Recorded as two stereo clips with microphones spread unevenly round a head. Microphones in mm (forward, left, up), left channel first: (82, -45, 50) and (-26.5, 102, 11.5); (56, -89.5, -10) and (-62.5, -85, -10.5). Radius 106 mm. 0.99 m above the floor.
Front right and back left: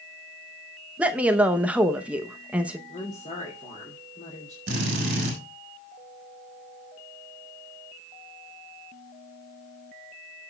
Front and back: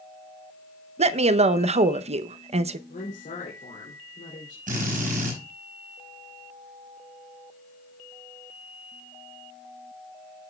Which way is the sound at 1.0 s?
155° right.